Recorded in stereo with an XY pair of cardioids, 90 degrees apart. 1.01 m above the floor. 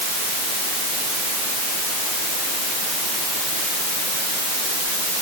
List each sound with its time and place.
Only background noise.